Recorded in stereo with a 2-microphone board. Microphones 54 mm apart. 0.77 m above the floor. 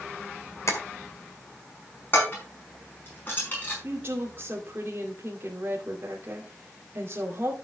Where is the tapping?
70° left (ahead or behind), 1.8 m.